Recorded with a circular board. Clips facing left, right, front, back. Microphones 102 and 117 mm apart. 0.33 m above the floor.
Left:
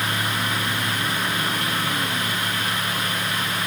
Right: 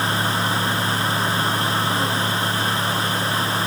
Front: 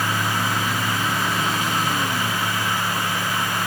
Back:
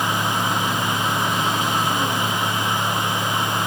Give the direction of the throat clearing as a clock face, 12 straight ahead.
No throat clearing in this recording.